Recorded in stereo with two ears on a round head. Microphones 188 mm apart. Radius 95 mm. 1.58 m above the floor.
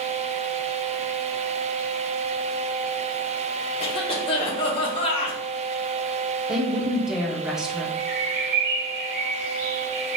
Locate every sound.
3.8 s a cough: 25° left (ahead or behind), 1.3 m
6.5 s a woman speaking: 5° right (ahead or behind), 1.1 m
8.0 s a bird: 50° right (ahead or behind), 1.0 m